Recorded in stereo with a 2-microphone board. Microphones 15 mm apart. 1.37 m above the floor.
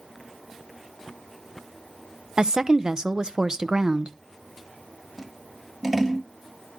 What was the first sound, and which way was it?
A woman speaking, 40° right (ahead or behind).